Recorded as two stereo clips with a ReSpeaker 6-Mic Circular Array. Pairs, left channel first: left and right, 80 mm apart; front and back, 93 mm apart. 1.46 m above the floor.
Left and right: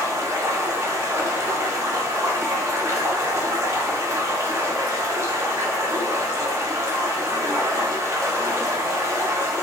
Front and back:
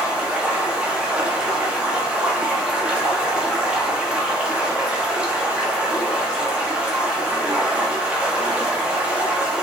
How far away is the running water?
About 1.0 m.